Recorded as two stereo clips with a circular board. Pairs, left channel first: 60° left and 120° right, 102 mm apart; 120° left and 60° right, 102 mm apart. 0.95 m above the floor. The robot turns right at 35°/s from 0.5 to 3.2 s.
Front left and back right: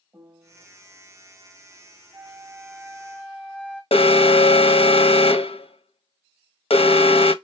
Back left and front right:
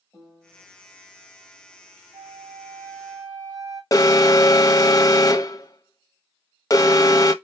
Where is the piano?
Straight behind, 2.5 m; by 0.7 s 175° right, 2.5 m.